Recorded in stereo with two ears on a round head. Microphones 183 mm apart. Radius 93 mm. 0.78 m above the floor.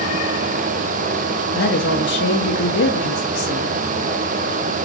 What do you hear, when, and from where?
1.5 s a woman speaking: 55° left (ahead or behind), 0.9 m